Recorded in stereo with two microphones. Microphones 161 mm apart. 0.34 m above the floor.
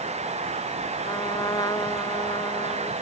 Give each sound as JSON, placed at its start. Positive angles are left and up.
{"t": 1.0, "sound": "a trumpet", "side_deg": 20}